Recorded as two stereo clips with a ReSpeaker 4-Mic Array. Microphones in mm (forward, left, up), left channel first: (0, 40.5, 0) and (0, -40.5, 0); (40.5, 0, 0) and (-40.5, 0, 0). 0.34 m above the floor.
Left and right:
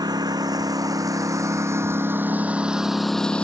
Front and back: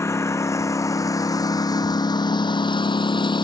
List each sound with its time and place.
0.0 s a lawn mower: 55° right; by 3.5 s 15° left